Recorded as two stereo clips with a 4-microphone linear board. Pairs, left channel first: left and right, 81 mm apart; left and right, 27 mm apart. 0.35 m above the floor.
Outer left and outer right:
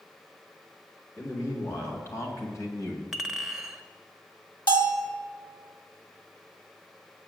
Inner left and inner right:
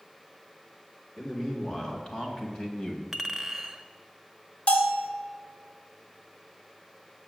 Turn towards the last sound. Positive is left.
turn(degrees=65)  # may be behind; listen again after turning